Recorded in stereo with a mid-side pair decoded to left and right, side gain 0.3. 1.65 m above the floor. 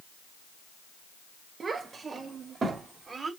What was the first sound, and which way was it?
A child speaking, 60° right.